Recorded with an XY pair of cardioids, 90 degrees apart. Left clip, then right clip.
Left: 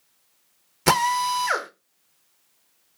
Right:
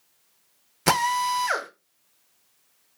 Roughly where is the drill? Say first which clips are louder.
Left 2 dB; ahead.